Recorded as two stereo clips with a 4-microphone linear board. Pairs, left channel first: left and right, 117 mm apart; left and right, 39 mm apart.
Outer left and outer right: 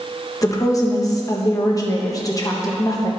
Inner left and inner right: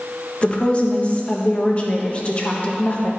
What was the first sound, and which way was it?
A woman speaking, 30° left (ahead or behind).